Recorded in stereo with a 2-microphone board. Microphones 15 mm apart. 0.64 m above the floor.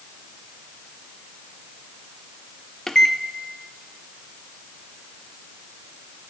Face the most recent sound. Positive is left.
turn(degrees=25)  # may be behind; listen again after turning